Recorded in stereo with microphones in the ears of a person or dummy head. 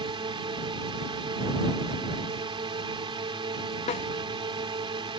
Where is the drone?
20° right (ahead or behind).